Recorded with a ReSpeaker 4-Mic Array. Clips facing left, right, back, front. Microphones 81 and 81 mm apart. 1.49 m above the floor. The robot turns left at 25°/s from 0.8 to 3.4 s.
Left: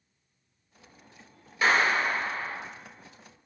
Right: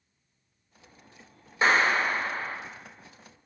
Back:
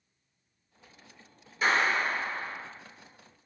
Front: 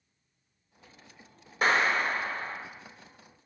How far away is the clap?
About 0.5 m.